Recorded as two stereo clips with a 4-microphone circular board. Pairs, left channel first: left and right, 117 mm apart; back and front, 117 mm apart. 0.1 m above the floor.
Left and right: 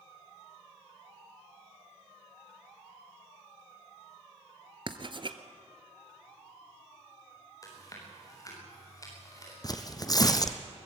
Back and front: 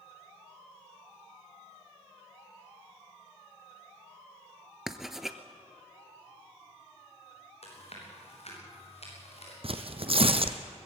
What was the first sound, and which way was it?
Writing, 85° right.